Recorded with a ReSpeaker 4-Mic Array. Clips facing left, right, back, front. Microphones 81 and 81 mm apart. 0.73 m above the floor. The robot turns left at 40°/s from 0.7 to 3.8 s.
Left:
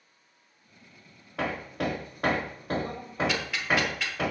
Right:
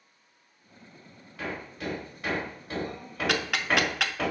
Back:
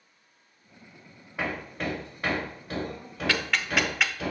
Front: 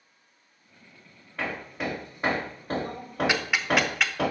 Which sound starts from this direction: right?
Ticking, at 3.3 s.